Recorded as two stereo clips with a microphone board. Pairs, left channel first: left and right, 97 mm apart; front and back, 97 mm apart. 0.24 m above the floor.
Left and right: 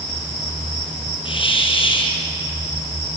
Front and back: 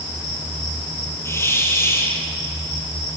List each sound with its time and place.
1.2 s a hiss: 65° left, 4.5 m